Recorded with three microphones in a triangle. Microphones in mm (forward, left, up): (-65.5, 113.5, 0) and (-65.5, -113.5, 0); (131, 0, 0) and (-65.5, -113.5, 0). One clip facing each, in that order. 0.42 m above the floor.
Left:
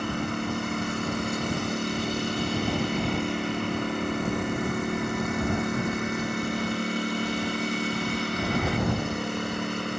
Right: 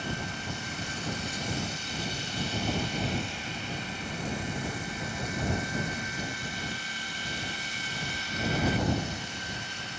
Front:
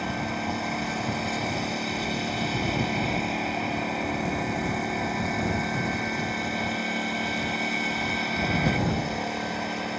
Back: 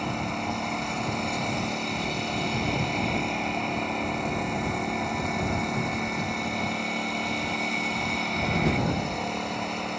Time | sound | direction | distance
0.0 | a lawn mower | 115° left | ?